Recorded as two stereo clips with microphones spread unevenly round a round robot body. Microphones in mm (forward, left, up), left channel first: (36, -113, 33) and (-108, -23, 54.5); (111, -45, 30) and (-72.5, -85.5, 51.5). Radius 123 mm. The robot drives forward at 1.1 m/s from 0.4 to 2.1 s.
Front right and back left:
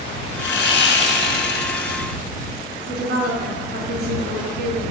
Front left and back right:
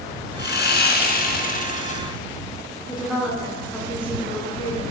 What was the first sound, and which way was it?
Sawing, 15° right.